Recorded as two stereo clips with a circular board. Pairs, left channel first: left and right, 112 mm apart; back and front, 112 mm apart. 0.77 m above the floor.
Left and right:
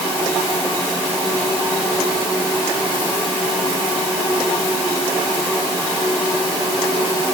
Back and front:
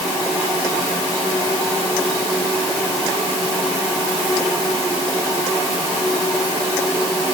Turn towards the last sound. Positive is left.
No sound to turn to.